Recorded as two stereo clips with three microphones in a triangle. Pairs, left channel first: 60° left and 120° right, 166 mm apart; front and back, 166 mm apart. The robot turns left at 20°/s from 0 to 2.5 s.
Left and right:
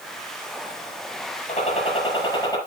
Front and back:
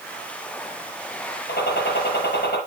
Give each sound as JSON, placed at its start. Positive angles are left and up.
{"t": 1.5, "sound": "a gunshot", "azimuth_deg": 15, "distance_m": 5.5}